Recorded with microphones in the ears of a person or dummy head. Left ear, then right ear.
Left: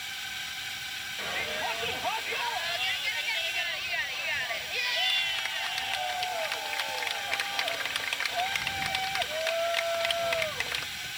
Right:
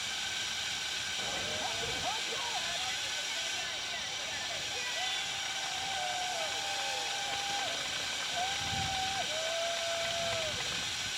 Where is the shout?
70° left (ahead or behind).